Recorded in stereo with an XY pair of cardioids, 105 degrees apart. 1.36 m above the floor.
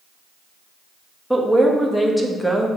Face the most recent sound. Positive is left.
turn(degrees=5)